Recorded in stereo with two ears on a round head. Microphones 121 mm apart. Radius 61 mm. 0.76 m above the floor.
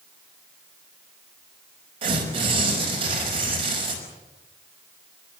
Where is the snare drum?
No snare drum in this recording.